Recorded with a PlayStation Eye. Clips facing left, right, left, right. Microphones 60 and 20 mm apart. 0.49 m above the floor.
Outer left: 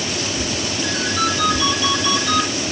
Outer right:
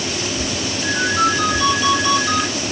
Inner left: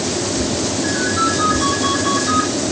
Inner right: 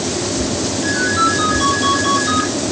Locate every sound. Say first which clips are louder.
0.8 s a ringtone: outer right 5 dB, inner right 3 dB; 20° right (ahead or behind), 5 m